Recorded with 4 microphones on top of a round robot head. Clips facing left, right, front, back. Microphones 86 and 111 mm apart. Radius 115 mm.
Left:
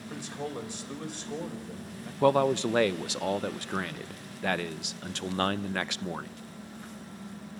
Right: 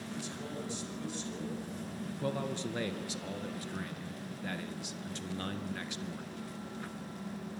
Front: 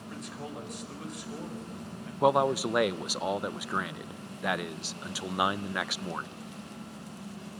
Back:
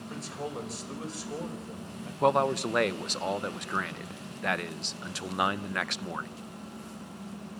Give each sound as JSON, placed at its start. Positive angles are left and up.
{"t": 0.1, "sound": "a man speaking", "azimuth_deg": 125, "distance_m": 5.0}
{"t": 2.2, "sound": "a man speaking", "azimuth_deg": 80, "distance_m": 0.7}